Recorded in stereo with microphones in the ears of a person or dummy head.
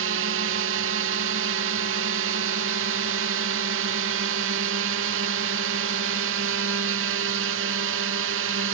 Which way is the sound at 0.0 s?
75° right (ahead or behind).